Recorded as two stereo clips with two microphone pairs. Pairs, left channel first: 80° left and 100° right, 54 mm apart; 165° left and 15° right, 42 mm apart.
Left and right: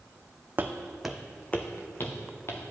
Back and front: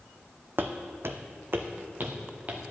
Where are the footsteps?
45° right, 0.6 m; by 2.6 s 45° left, 1.5 m.